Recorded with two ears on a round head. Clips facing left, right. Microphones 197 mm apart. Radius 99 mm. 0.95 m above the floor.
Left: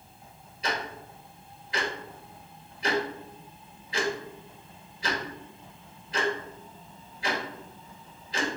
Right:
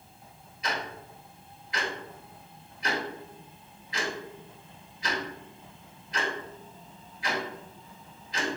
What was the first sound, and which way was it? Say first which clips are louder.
Ticking: left 2 dB; 25° left (ahead or behind).